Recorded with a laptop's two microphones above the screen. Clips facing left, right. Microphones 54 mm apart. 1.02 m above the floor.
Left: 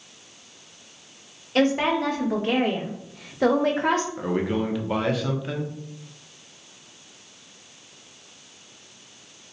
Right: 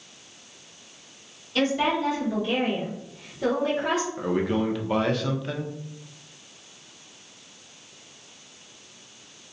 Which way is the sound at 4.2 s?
5° left (ahead or behind).